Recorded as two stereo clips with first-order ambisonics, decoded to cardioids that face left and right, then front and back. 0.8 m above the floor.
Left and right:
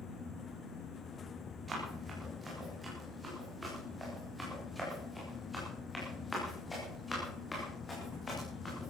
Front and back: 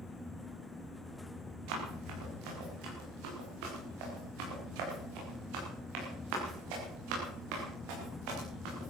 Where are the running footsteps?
165° right, 6.5 m; by 8.9 s 165° left, 7.5 m.